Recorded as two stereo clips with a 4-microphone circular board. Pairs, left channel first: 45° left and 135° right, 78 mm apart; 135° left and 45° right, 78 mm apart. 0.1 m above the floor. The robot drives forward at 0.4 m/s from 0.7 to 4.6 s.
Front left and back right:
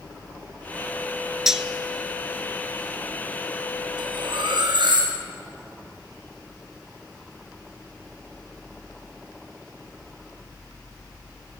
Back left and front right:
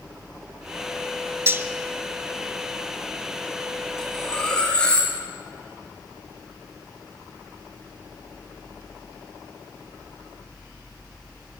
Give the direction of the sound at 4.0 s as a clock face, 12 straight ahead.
5 o'clock.